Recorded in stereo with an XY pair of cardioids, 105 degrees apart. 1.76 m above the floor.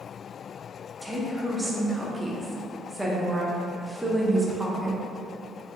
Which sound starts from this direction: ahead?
A woman speaking, at 1.0 s.